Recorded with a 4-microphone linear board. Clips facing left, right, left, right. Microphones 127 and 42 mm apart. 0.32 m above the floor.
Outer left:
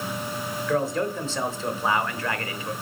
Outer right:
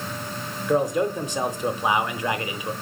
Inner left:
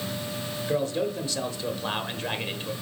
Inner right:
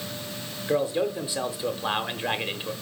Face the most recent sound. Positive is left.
turn(degrees=-15)  # may be behind; listen again after turning